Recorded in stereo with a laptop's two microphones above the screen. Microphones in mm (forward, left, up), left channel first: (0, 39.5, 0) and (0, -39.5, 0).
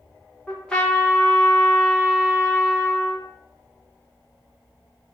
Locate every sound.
0.5 s a trumpet: 10° left (ahead or behind), 0.6 m